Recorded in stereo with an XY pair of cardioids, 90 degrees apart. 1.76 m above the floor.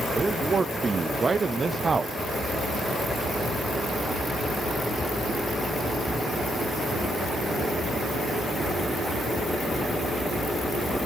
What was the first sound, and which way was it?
A man speaking, 40° right.